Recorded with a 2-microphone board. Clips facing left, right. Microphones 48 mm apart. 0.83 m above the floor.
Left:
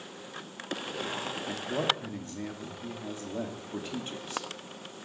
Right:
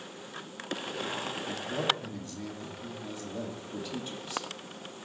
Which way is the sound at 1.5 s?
40° left (ahead or behind).